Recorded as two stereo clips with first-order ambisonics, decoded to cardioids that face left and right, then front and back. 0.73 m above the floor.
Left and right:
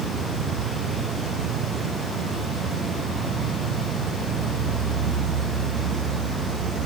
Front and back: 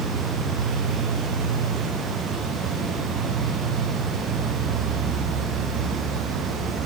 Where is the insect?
110° right, 1.4 m.